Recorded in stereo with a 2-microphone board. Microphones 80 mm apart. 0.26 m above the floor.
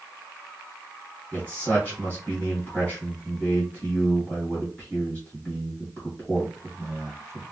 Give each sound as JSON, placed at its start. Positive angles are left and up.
{"t": 1.3, "sound": "a man speaking", "side_deg": 20, "distance_m": 1.9}